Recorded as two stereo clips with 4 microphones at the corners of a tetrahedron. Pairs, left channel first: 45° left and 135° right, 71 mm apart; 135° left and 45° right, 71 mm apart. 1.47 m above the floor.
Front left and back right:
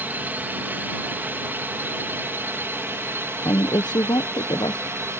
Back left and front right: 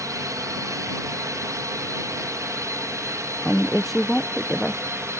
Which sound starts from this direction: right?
A drone, at 0.0 s.